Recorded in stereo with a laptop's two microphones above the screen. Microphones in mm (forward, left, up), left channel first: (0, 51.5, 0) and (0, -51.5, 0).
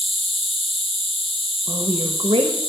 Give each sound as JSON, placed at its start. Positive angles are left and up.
{"t": 0.0, "sound": "an insect", "side_deg": 70, "distance_m": 2.5}
{"t": 1.7, "sound": "a woman speaking", "side_deg": -60, "distance_m": 1.2}